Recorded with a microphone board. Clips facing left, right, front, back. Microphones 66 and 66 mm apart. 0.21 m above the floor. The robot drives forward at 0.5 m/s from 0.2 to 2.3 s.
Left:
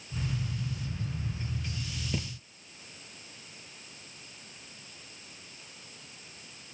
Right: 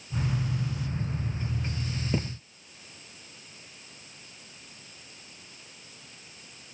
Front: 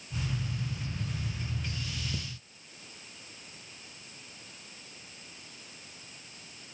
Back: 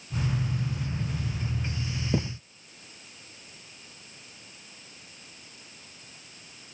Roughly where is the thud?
Behind right.